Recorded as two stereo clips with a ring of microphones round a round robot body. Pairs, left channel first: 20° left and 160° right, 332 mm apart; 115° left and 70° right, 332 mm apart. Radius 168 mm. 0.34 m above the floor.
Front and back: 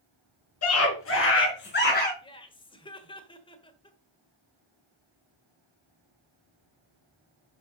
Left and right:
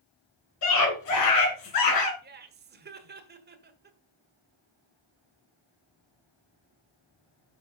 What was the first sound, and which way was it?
A scream, 70° left.